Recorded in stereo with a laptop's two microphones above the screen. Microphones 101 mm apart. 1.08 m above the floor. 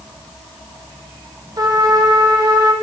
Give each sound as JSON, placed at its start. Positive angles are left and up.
{"t": 1.6, "sound": "a trumpet", "side_deg": -40, "distance_m": 0.8}